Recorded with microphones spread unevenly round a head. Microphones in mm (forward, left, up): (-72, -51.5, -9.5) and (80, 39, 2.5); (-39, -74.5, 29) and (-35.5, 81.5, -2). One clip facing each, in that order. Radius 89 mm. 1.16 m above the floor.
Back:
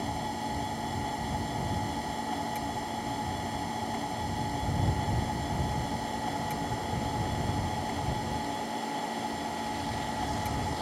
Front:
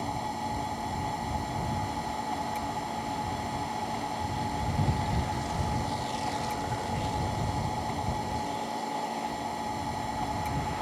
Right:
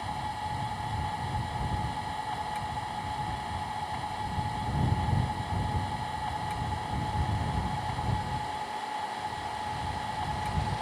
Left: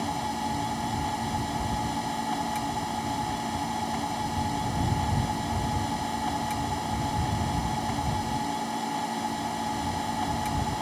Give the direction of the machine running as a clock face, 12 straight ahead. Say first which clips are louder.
Even, left 5 dB; 8 o'clock.